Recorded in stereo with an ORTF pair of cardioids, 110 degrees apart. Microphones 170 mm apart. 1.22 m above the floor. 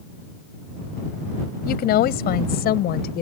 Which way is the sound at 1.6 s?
70° left.